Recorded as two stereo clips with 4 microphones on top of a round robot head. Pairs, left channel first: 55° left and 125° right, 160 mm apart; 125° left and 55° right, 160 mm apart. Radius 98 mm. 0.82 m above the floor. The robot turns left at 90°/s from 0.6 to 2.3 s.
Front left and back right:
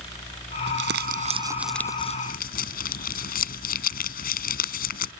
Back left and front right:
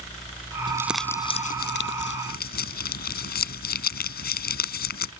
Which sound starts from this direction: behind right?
Crumpling, at 0.7 s.